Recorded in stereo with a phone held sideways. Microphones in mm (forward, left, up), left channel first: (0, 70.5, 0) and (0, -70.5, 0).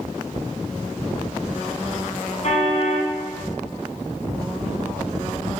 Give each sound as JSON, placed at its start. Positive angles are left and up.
{"t": 2.4, "sound": "a car horn", "side_deg": 50, "distance_m": 6.0}